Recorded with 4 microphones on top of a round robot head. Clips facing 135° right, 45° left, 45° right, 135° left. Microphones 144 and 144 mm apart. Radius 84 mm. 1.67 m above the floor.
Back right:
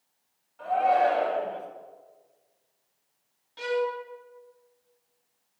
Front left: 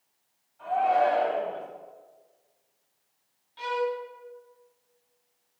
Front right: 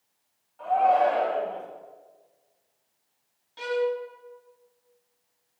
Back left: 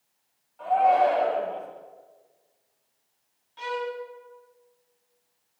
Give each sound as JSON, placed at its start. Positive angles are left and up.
{"t": 0.6, "sound": "a shout", "azimuth_deg": -130, "distance_m": 7.5}
{"t": 3.6, "sound": "a violin", "azimuth_deg": -95, "distance_m": 2.0}